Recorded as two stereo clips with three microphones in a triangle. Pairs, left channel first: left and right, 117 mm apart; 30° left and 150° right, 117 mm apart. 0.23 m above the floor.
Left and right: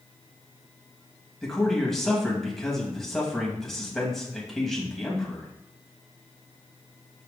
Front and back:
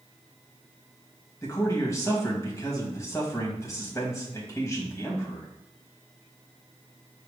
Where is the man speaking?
5° left, 1.2 m.